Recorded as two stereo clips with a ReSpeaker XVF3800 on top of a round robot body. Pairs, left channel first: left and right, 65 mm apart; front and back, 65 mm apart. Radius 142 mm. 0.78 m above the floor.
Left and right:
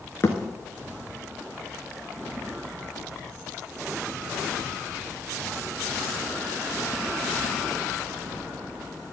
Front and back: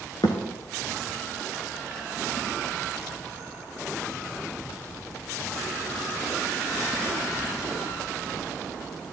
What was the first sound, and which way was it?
A thud, 45° left.